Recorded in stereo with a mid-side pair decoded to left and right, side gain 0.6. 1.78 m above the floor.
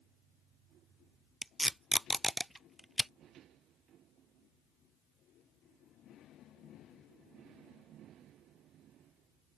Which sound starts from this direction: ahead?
Tape being pulled, at 1.4 s.